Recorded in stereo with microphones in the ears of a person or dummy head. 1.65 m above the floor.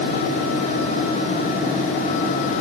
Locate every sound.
Only background noise.